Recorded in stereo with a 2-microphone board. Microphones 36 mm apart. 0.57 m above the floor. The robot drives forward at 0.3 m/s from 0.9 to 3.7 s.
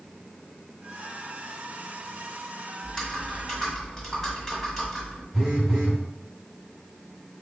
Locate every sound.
2.8 s typing on a keyboard: 10° left (ahead or behind), 1.2 m
5.3 s a phone buzzing: 5° right (ahead or behind), 1.0 m